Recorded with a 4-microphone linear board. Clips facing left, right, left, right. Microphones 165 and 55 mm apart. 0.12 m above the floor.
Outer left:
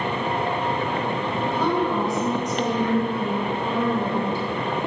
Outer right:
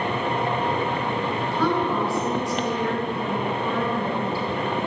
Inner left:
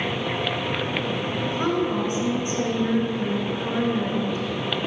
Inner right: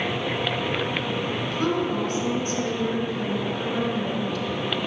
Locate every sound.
1.4 s a woman speaking: 20° left (ahead or behind), 1.2 m